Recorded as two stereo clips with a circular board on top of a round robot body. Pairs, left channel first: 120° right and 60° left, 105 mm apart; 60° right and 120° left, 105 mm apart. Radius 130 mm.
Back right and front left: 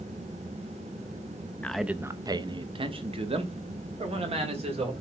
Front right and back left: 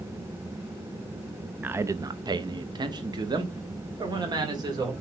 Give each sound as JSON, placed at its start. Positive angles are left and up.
{"t": 1.6, "sound": "a man speaking", "azimuth_deg": 175, "distance_m": 0.6}